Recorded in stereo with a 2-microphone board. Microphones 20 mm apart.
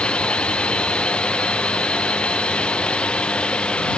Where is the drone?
70° left (ahead or behind).